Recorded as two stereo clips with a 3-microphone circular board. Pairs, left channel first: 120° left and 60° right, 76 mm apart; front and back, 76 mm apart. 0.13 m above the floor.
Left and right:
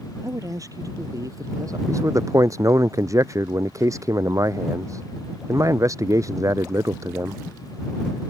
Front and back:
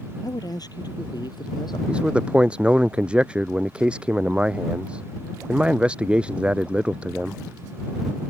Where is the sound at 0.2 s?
25° right; by 1.8 s 20° right.